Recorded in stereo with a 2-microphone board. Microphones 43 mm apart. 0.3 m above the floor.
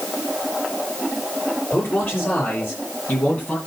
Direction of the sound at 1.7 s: 55° left (ahead or behind).